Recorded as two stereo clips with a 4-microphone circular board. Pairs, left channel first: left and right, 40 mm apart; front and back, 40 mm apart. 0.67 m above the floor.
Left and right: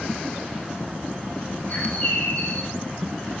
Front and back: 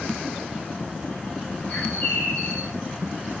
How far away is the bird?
About 2.5 m.